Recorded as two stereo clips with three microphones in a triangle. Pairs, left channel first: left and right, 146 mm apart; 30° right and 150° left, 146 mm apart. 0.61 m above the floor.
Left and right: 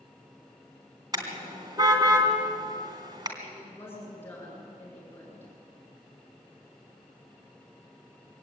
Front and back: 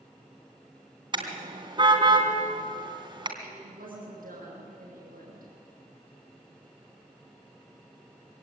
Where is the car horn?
150° right, 3 m.